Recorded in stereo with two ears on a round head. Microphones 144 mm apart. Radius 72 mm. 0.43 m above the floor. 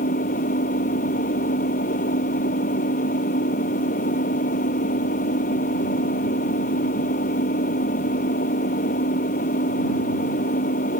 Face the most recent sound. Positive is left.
turn(degrees=55)  # may be behind; listen again after turning